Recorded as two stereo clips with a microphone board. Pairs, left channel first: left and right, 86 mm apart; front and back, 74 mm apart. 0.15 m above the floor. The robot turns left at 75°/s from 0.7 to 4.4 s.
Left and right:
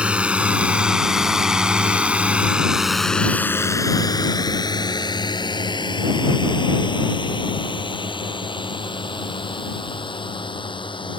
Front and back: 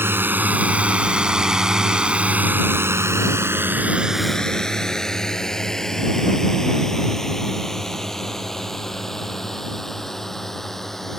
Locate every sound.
0.0 s a drone: 155° right; by 11.2 s 85° left